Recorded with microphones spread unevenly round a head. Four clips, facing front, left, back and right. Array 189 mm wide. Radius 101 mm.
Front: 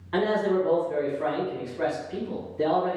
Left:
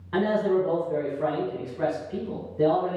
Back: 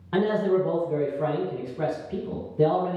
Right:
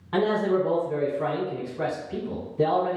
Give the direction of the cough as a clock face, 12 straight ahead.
No cough in this recording.